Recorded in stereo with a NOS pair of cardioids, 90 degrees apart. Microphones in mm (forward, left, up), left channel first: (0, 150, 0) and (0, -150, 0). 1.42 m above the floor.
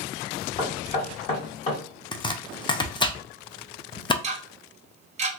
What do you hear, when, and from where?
0.6 s knocking: 25° left, 1.9 m
2.1 s chopping: 15° left, 0.6 m
4.2 s ticking: 25° right, 1.2 m